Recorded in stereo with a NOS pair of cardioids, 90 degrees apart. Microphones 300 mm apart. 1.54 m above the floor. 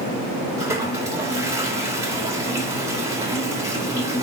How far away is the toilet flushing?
About 2.5 m.